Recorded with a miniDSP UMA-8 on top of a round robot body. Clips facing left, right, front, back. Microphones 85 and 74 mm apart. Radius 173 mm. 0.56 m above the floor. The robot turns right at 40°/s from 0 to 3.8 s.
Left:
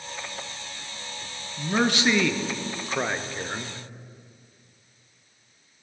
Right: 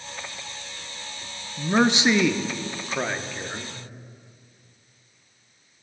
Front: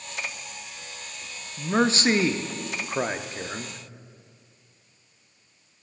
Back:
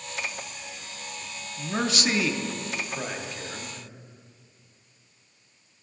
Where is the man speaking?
50° right, 0.6 m; by 3.8 s 40° left, 0.6 m.